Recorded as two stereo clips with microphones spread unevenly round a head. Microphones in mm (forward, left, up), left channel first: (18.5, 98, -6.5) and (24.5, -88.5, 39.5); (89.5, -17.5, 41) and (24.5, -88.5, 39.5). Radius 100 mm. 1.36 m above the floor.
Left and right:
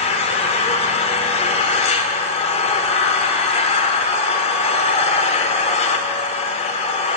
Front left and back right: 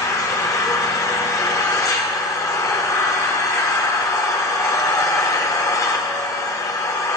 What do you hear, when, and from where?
0.0 s an engine running: 40° left, 1.1 m